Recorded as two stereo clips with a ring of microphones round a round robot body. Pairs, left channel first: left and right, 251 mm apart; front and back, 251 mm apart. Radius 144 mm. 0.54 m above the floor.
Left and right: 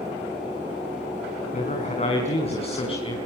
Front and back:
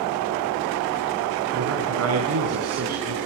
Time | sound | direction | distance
1.5 | a man speaking | 150° left | 5 m